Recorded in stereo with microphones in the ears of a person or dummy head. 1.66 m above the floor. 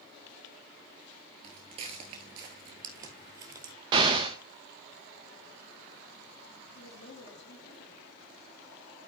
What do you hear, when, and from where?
1.4 s footsteps: 20° right (ahead or behind), 1.8 m; by 3.7 s 25° right (ahead or behind), 2 m
3.9 s an explosion: 20° right (ahead or behind), 1.0 m
6.8 s a woman speaking: 55° left (ahead or behind), 8 m